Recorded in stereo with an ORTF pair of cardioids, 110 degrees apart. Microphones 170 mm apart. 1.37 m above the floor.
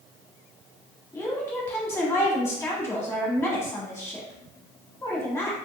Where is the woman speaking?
15° left, 1.2 m.